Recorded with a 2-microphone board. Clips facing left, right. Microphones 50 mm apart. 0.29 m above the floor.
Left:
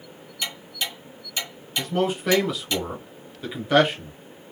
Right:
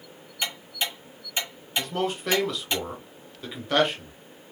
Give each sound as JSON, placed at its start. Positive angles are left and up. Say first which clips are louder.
{"t": 0.4, "sound": "ticking", "louder": "even", "side_deg": -25, "distance_m": 1.4}
{"t": 1.8, "sound": "a man speaking", "louder": "left 4 dB", "side_deg": 5, "distance_m": 0.9}